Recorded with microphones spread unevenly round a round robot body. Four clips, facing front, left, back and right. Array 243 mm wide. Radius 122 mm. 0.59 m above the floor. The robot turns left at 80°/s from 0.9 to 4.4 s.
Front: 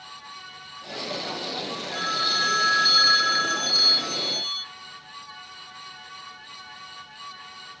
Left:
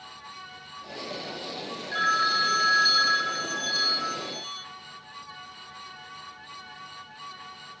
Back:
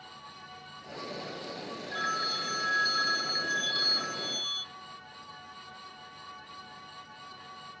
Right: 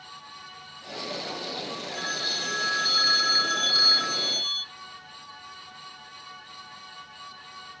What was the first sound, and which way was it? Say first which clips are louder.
A phone ringing: left 9 dB, front 4 dB; 85° left.